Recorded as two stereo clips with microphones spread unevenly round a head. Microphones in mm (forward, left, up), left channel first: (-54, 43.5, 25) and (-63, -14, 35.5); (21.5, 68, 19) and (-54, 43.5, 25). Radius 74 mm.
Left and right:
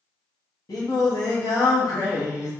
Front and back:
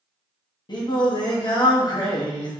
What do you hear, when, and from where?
0.7 s singing: 50° left, 1.1 m